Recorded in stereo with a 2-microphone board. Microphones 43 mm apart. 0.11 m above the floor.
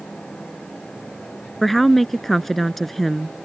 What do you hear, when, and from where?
1.6 s a woman speaking: 5° left (ahead or behind)